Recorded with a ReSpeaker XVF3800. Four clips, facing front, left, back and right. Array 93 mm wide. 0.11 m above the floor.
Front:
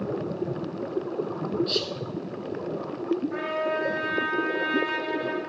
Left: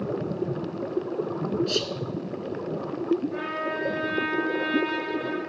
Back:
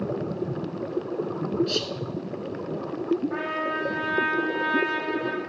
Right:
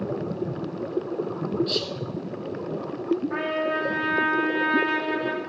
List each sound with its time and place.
1.7 s whispering: 125° left, 1.1 m
3.3 s a trumpet: 115° right, 2.5 m